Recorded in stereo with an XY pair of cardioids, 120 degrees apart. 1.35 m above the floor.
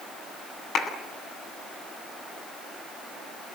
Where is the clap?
55° left, 9 m.